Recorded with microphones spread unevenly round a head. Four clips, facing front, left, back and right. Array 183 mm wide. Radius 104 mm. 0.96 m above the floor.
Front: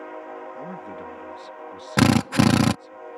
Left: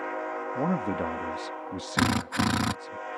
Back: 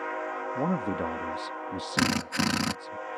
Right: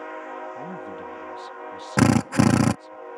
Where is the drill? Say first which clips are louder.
Right 8 dB, front 10 dB; 50° right.